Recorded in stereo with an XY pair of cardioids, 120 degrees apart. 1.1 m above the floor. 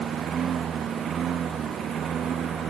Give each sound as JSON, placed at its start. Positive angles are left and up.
{"t": 0.0, "sound": "a lawn mower", "azimuth_deg": -50}